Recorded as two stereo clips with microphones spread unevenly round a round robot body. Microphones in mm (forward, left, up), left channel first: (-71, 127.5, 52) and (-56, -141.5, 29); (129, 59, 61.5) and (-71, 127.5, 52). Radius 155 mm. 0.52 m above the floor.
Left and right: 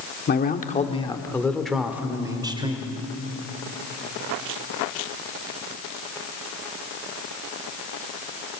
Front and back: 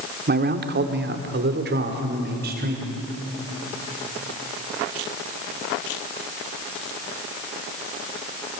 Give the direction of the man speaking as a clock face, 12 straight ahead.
7 o'clock.